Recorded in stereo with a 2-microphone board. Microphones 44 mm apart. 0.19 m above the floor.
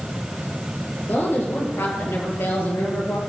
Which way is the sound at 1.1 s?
60° left (ahead or behind).